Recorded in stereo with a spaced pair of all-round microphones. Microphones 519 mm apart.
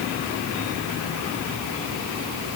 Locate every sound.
Only background noise.